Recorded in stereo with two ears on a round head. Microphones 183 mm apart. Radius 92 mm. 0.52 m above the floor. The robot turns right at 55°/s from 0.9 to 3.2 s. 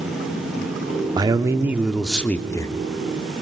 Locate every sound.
1.2 s a man speaking: 20° right (ahead or behind), 0.9 m; by 2.7 s 20° left (ahead or behind), 0.9 m